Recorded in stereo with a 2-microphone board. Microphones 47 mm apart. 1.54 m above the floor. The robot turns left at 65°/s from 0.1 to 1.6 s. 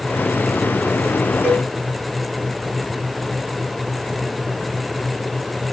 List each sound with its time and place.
1.4 s a cowbell: 70° right (ahead or behind), 5.5 m; by 1.7 s 80° right, 5.5 m